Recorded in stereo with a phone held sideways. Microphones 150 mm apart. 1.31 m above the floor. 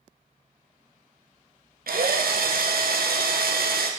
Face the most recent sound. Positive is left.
turn(degrees=-80)